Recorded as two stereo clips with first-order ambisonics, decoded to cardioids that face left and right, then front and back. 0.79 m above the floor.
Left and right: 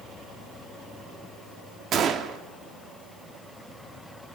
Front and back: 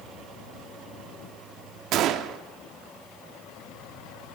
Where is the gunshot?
140° right, 1.5 m.